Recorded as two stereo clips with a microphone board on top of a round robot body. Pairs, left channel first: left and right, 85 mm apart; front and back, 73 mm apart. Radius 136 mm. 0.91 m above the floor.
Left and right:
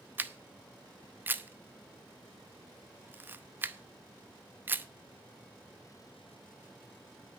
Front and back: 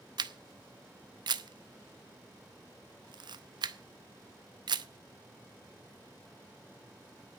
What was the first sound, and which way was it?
A camera shutter, 160° right.